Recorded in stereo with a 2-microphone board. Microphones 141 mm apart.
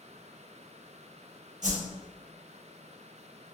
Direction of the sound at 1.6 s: 65° right (ahead or behind).